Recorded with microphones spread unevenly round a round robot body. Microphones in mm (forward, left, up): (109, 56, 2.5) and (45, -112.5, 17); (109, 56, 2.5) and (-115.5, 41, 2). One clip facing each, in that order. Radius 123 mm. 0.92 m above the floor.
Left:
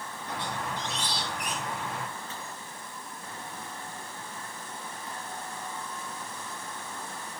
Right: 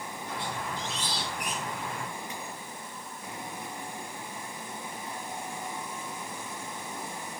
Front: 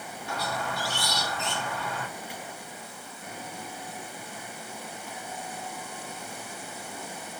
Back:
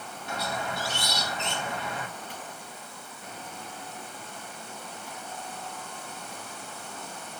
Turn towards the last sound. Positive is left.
turn(degrees=115)